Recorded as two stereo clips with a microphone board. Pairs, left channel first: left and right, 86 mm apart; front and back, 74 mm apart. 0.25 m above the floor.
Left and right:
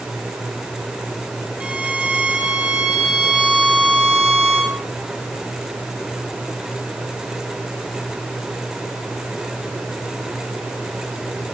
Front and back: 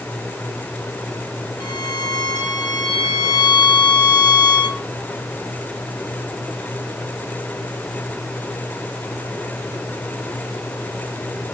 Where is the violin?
15° right, 3.5 m.